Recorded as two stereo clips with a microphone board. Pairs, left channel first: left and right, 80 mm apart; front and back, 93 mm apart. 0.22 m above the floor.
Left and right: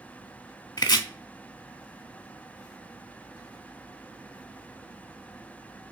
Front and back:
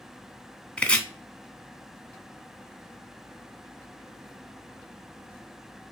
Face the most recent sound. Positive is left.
turn(degrees=75)